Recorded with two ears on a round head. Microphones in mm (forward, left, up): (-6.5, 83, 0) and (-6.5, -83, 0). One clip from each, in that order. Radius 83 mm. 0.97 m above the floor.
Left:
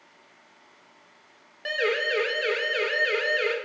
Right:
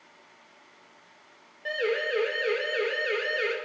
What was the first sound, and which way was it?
A siren, 55° left (ahead or behind).